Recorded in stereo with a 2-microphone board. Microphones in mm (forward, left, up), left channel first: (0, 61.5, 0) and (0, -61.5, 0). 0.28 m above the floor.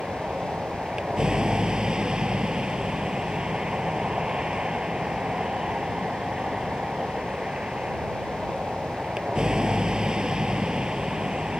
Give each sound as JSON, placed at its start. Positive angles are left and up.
{"t": 0.0, "sound": "a vehicle", "side_deg": -5}